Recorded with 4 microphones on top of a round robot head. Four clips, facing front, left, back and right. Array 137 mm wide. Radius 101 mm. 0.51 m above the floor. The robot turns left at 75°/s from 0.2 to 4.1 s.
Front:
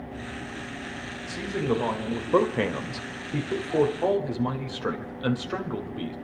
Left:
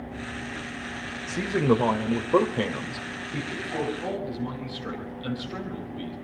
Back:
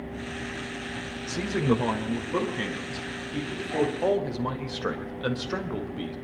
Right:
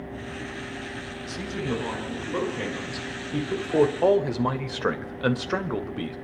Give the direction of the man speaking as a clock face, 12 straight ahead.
8 o'clock.